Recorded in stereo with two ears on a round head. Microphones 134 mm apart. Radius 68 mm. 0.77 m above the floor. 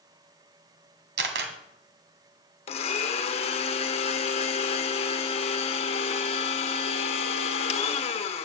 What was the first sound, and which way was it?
A camera shutter, 80° right.